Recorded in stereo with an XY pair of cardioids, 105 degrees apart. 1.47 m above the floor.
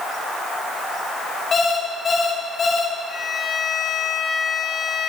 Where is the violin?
40° left, 5 m.